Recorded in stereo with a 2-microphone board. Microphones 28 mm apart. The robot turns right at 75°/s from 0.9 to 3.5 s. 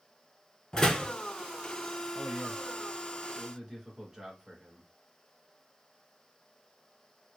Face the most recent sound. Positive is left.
turn(degrees=-10)  # may be behind; listen again after turning